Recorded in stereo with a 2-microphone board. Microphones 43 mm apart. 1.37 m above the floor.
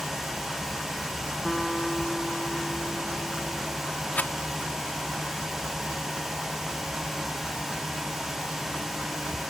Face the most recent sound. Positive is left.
turn(degrees=45)  # may be behind; listen again after turning